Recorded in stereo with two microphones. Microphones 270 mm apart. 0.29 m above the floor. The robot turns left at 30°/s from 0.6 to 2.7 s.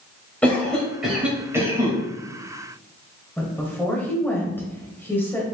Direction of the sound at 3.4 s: 10° left (ahead or behind).